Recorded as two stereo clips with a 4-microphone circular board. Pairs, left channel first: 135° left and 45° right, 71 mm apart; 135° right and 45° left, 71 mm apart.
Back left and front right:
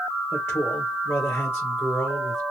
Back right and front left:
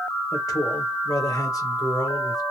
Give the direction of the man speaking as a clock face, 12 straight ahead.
6 o'clock.